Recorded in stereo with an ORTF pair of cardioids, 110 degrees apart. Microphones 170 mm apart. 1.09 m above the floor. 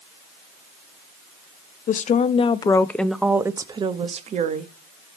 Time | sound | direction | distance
1.9 | a woman speaking | 50° left | 0.9 m